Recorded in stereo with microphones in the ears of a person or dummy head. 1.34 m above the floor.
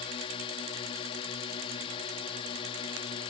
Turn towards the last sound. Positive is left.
turn(degrees=35)  # may be behind; listen again after turning